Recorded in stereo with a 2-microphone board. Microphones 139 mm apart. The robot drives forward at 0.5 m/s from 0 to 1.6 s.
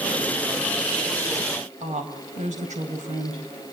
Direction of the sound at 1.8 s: 70° right (ahead or behind).